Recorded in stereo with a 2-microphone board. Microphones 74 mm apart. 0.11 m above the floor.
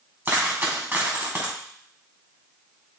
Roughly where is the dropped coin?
Right.